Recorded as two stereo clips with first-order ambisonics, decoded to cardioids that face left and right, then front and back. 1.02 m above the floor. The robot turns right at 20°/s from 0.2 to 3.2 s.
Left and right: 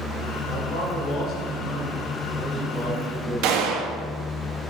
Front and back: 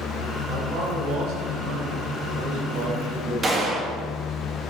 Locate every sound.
0.5 s a man speaking: 130° left, 5.5 m; by 3.8 s 175° right, 5.5 m
3.4 s a gunshot: 110° right, 1.8 m